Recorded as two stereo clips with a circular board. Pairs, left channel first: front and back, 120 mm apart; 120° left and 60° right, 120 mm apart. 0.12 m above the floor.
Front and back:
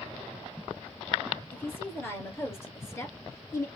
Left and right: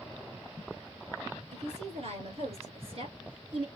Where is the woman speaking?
70° right, 3 m; by 3.7 s 55° right, 1.9 m.